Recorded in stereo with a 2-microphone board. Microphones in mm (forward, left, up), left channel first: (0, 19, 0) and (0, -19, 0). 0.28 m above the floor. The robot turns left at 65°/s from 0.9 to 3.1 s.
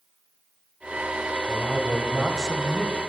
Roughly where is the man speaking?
Centre.